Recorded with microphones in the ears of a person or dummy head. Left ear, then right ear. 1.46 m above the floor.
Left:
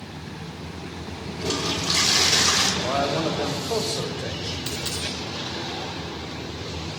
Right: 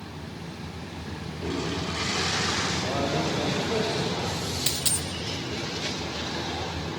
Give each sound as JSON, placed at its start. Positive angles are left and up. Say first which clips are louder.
{"t": 1.4, "sound": "a toilet flushing", "louder": "left 5 dB", "side_deg": 85, "distance_m": 5.0}
{"t": 2.8, "sound": "a man speaking", "louder": "left 4 dB", "side_deg": 60, "distance_m": 5.5}
{"t": 4.7, "sound": "a dropped coin", "louder": "right 1 dB", "side_deg": -20, "distance_m": 2.0}